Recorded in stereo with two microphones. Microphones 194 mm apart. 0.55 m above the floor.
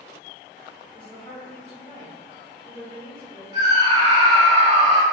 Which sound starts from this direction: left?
A woman speaking, at 0.9 s.